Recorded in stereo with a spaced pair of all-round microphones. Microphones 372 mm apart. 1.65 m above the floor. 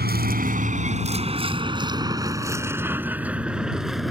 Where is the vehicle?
30° right (ahead or behind); by 4.1 s centre (ahead or behind).